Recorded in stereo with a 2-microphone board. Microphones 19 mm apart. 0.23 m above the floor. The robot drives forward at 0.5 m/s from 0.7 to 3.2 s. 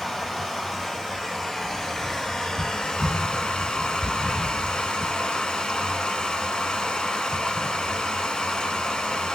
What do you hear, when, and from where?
0.0 s running water: 20° left (ahead or behind), 1.6 m; by 9.3 s 60° left (ahead or behind), 0.6 m